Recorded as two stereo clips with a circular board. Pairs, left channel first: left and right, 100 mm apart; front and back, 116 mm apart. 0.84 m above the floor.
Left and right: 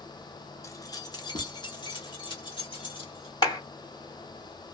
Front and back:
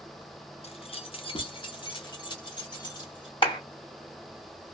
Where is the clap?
45° left, 2 m.